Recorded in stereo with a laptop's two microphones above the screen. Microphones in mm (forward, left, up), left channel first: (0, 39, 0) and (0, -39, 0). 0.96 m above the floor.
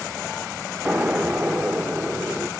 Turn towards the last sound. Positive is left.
turn(degrees=-10)  # may be behind; listen again after turning